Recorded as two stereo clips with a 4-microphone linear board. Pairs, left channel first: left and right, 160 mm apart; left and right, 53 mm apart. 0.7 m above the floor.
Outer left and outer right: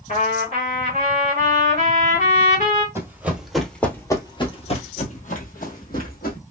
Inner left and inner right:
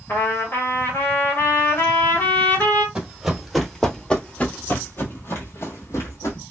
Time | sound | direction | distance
0.1 | a trumpet | 50° left (ahead or behind) | 1.5 m
3.0 | running footsteps | 15° right (ahead or behind) | 1.1 m